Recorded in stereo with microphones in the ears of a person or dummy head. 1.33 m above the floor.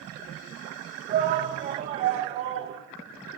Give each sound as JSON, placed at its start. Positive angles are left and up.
{"t": 1.1, "sound": "a shout", "side_deg": -40, "distance_m": 1.7}